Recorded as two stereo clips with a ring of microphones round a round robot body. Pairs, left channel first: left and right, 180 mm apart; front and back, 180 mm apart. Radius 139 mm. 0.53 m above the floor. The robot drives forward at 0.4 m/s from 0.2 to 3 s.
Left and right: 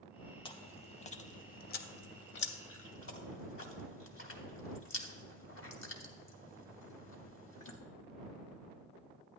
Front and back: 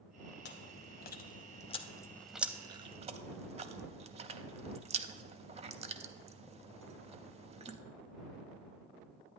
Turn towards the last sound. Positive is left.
turn(degrees=125)